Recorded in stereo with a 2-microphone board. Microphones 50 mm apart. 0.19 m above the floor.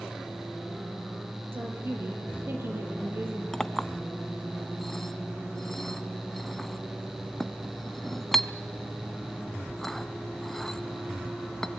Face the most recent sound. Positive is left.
turn(degrees=5)  # may be behind; listen again after turning